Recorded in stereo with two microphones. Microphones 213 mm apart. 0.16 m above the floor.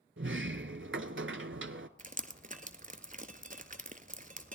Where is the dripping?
40° right (ahead or behind), 0.7 m.